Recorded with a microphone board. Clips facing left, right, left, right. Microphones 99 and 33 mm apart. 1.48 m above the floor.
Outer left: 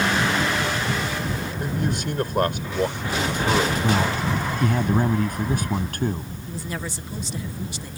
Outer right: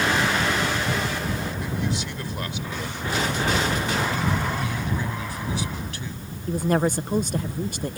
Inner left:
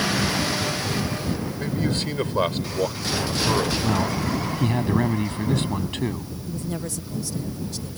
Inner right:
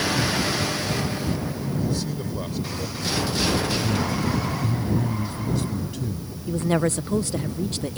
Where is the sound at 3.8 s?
50° left (ahead or behind).